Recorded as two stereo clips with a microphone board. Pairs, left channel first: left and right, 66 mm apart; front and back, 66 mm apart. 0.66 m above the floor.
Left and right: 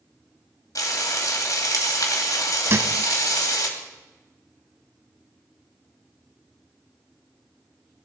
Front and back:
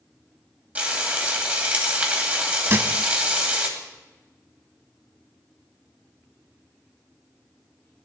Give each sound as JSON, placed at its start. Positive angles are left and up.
{"t": 0.8, "sound": "frying", "azimuth_deg": 115, "distance_m": 2.5}
{"t": 2.7, "sound": "a thud", "azimuth_deg": -130, "distance_m": 1.1}